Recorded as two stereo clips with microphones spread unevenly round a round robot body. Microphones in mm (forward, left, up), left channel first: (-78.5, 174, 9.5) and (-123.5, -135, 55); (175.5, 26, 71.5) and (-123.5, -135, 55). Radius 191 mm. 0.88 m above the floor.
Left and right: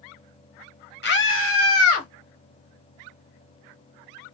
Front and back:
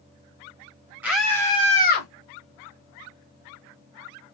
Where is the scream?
125° left, 1.6 m; by 2.1 s 80° left, 1.5 m.